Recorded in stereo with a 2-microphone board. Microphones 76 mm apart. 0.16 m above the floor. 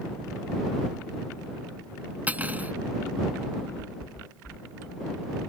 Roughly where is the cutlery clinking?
Right.